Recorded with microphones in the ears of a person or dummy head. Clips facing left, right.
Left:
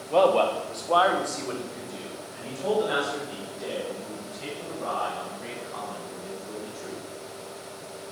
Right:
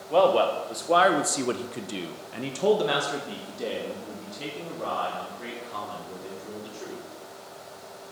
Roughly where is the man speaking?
Centre.